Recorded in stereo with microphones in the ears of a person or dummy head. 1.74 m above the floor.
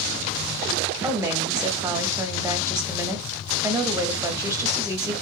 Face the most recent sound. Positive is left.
turn(degrees=-10)  # may be behind; listen again after turning